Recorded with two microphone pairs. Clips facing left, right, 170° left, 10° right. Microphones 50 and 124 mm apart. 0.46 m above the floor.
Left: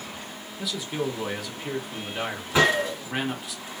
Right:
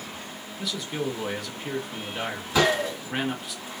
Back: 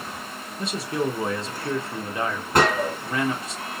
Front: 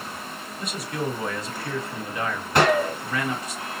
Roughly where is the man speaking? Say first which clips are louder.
Left 1 dB, back 4 dB; behind.